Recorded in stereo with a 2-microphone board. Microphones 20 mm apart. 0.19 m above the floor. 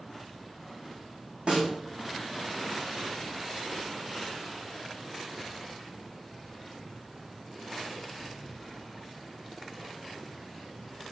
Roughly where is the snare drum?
Right.